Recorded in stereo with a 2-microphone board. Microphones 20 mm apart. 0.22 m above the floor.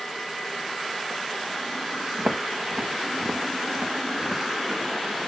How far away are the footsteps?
About 1.6 m.